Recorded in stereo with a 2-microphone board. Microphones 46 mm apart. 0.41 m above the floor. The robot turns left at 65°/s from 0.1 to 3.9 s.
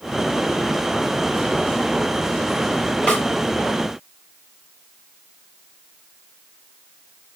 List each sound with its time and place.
3.1 s a snare drum: 25° left (ahead or behind), 1.2 m